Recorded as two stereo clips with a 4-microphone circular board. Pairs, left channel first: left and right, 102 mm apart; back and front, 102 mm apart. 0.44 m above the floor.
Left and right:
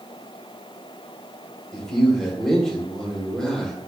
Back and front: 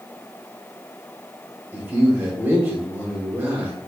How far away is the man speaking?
About 0.9 m.